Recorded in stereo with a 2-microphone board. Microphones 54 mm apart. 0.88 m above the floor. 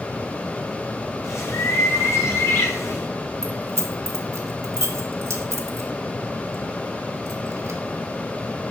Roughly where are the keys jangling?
Right.